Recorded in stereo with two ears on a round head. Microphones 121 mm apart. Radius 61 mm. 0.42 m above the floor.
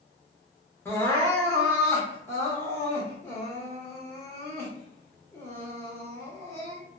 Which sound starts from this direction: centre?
Crying, at 0.8 s.